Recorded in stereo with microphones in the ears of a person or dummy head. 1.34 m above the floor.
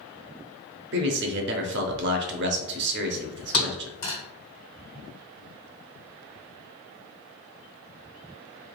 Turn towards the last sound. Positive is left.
turn(degrees=45)  # may be behind; listen again after turning